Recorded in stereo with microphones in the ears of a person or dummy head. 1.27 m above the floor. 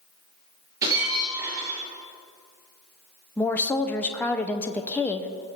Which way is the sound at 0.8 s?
15° right (ahead or behind).